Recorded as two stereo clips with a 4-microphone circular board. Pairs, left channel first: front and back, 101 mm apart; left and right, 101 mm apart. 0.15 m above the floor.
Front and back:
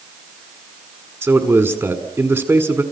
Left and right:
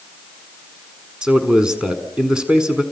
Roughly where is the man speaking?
Behind.